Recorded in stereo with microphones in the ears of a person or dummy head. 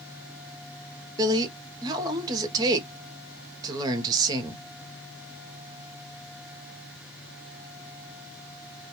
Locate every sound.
1.2 s a woman speaking: 20° right (ahead or behind), 0.6 m